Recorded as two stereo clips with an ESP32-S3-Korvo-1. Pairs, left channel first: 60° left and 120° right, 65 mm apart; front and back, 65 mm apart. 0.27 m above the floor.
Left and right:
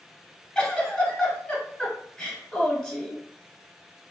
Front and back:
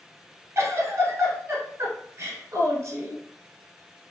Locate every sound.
0.6 s a giggle: 140° left, 0.9 m